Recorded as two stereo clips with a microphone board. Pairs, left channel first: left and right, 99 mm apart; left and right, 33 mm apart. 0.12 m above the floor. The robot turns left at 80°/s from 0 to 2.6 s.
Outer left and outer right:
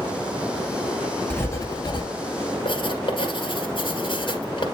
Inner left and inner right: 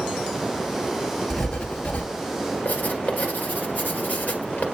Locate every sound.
1.3 s writing: 165° left, 1.5 m; by 2.1 s 100° left, 1.5 m
2.6 s writing: 55° left (ahead or behind), 2.5 m